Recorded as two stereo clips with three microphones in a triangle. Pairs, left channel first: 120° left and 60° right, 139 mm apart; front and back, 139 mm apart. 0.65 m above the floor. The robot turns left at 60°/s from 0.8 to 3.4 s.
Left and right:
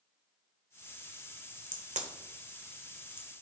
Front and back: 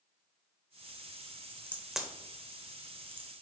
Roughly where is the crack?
Right.